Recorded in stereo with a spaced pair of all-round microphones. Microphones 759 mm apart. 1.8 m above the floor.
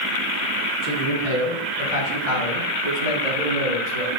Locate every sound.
0.8 s a man speaking: 80° left, 4 m; by 4.1 s 75° left (ahead or behind), 7.5 m